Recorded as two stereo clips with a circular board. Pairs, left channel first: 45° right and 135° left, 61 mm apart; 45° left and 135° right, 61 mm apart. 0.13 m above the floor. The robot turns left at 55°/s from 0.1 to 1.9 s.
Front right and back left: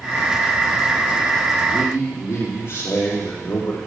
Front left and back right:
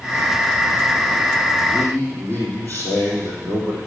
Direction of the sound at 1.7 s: Straight ahead.